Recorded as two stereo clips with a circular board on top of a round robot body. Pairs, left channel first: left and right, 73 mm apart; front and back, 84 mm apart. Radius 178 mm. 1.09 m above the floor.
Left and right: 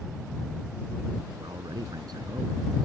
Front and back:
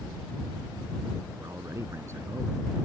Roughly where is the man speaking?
Behind right.